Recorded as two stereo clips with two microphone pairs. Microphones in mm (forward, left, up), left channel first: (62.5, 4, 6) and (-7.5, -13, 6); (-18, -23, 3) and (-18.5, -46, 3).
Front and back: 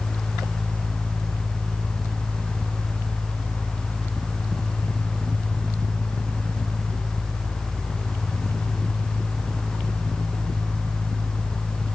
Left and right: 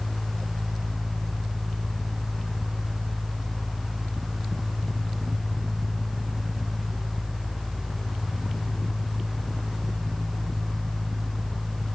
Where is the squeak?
No squeak in this recording.